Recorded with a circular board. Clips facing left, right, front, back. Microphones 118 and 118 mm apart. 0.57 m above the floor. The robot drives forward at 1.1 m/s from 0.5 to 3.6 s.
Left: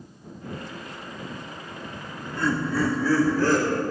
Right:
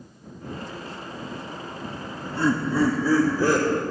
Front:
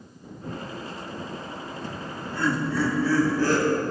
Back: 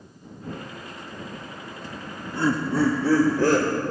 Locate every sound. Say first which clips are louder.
1.8 s laughter: right 2 dB, even; 50° right, 0.7 m; by 3.8 s 165° right, 1.8 m